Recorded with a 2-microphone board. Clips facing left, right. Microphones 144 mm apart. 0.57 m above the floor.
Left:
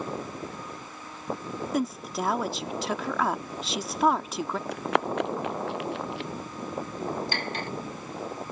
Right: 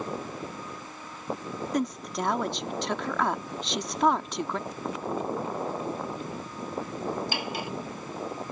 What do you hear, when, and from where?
1.7 s a woman speaking: 5° left (ahead or behind)
4.7 s running footsteps: 75° left (ahead or behind); by 6.3 s 85° left
7.3 s cutlery clinking: 10° right (ahead or behind)